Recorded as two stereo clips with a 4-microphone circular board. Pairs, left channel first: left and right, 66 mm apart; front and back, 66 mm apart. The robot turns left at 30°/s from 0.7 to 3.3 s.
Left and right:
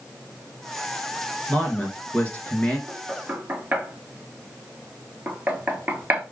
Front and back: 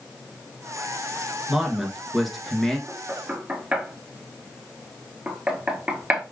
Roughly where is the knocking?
Right.